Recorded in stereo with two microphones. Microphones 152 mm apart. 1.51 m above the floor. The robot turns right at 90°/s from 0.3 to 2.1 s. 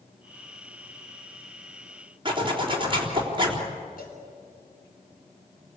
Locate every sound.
2.2 s a zipper: 35° right (ahead or behind), 4 m
4.0 s a cowbell: 70° left (ahead or behind), 5.5 m